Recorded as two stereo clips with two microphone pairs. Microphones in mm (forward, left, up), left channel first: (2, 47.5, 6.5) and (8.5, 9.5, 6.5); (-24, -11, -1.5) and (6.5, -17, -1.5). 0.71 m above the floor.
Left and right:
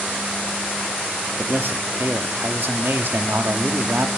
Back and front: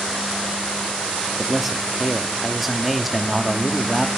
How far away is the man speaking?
About 0.9 m.